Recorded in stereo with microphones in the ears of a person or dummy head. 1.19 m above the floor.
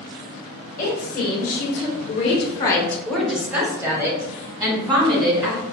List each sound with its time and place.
0.8 s a woman speaking: 40° left (ahead or behind), 1.2 m; by 5.6 s 20° right (ahead or behind), 2 m